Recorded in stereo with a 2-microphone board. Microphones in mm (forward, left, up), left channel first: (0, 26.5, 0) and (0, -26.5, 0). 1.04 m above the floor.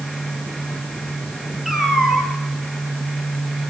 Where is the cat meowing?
5° right (ahead or behind), 4.5 m.